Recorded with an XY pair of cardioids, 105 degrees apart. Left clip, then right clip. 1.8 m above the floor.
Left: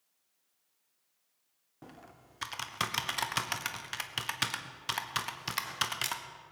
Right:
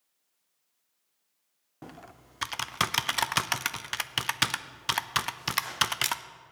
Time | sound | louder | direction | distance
1.8 | typing on a keyboard | right 5 dB | 40° right | 0.7 m